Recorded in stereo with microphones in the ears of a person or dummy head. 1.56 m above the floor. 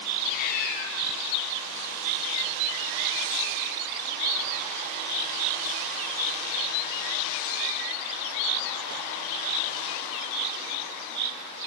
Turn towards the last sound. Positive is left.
turn(degrees=55)  # may be behind; listen again after turning